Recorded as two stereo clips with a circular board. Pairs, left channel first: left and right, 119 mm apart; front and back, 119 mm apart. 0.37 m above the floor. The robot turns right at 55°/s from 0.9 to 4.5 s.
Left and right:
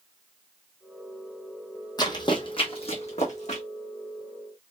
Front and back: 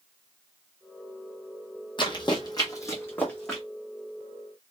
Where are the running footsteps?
40° left, 0.8 m; by 3.6 s 90° left, 1.3 m.